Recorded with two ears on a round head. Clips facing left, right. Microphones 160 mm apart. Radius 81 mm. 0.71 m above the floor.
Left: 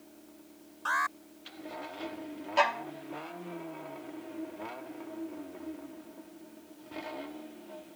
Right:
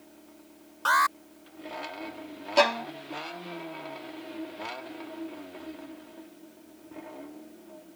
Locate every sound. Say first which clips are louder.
0.8 s an alarm: right 8 dB; 70° right (ahead or behind)
2.6 s a violin: right 6 dB; 50° right (ahead or behind)